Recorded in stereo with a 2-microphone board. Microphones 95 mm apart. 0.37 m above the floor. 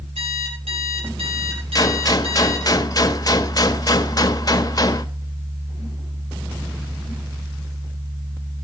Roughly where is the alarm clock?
Right.